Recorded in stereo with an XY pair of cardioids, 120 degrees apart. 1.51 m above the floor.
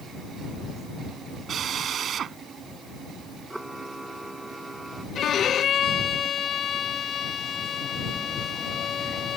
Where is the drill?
50° right.